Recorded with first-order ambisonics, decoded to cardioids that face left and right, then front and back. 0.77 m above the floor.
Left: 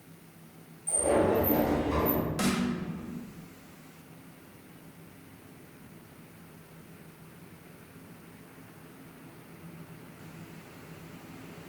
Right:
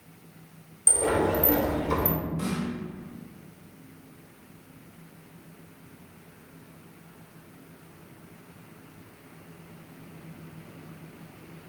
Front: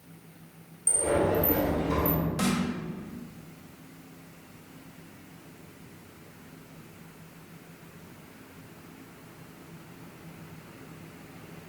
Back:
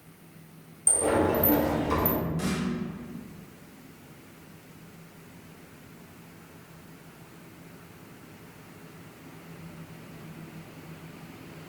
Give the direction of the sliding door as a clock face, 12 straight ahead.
4 o'clock.